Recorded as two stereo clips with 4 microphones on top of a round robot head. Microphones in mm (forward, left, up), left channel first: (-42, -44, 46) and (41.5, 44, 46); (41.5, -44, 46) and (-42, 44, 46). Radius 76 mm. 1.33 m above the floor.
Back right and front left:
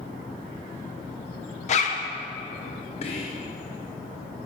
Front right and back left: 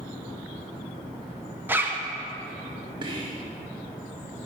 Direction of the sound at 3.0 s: 170° right.